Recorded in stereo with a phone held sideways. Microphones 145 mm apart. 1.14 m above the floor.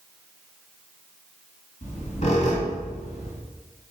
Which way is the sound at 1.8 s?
55° left (ahead or behind).